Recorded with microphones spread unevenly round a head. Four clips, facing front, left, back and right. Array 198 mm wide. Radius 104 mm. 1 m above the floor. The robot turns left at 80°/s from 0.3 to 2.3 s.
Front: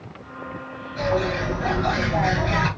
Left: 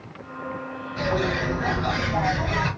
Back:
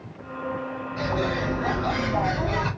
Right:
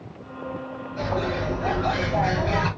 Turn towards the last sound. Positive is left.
turn(degrees=-5)